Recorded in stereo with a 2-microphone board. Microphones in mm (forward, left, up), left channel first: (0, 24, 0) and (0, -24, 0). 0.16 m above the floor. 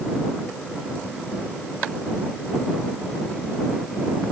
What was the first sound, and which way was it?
Only background noise.